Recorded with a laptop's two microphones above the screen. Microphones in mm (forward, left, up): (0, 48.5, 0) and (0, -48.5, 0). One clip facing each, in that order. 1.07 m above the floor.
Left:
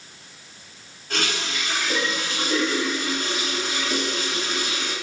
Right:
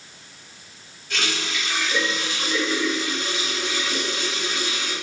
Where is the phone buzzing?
I don't hear a phone buzzing.